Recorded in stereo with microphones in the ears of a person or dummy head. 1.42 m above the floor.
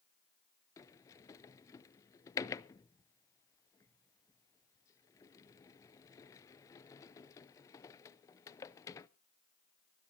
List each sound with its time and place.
0.8 s a sliding door: 20° left (ahead or behind), 0.5 m